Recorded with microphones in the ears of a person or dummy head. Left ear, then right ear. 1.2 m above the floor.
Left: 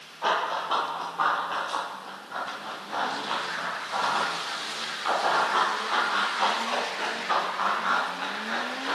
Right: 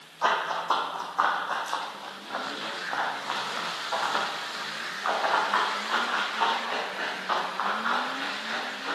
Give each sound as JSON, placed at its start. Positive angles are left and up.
{"t": 0.2, "sound": "running footsteps", "side_deg": -60, "distance_m": 2.5}